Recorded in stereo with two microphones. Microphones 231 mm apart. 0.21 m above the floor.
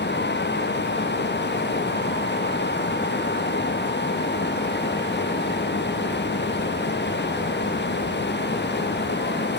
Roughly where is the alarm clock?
No alarm clock in this recording.